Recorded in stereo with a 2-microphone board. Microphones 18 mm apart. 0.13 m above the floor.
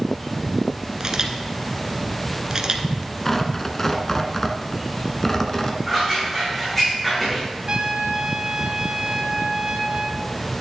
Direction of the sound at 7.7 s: 50° right (ahead or behind).